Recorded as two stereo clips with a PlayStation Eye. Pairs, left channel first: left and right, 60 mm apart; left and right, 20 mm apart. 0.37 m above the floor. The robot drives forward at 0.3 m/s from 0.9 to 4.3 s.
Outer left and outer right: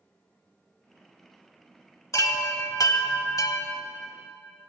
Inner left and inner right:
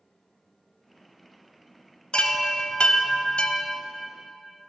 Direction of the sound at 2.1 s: 65° left (ahead or behind).